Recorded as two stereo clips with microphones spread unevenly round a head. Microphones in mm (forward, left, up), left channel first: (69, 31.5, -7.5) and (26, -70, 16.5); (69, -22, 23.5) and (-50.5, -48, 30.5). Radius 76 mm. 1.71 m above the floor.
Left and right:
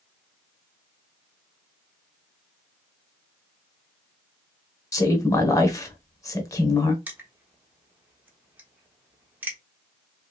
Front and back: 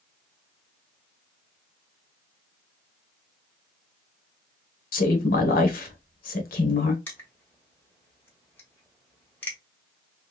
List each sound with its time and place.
4.9 s a woman speaking: 5° left, 1.2 m
7.1 s crushing: 60° right, 1.2 m